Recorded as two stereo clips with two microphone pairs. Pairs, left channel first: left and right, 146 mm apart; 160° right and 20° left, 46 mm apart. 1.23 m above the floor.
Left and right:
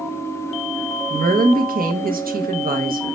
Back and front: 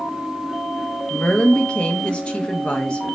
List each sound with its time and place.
1.1 s a woman speaking: 95° right, 0.8 m